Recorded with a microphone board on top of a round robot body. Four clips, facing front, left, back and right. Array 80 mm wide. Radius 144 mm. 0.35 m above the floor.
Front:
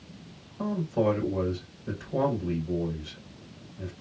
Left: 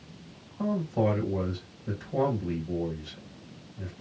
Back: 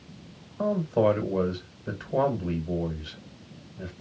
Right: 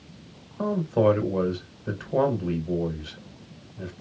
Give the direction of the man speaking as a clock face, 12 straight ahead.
4 o'clock.